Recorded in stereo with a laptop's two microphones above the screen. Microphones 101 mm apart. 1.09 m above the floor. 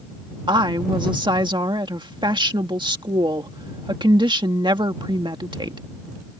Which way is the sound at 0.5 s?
50° right (ahead or behind).